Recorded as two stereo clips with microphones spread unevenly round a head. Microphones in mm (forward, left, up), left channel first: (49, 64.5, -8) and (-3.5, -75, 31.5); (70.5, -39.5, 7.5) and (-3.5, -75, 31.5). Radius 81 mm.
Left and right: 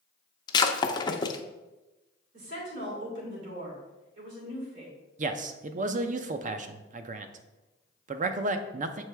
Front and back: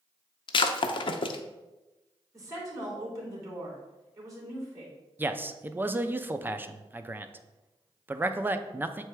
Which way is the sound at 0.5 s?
Straight ahead.